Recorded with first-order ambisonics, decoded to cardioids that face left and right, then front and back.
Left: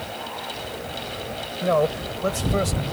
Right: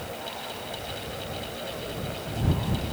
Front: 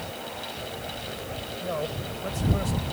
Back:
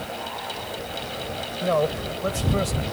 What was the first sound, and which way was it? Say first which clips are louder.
A man speaking: left 13 dB, back 10 dB; 120° left.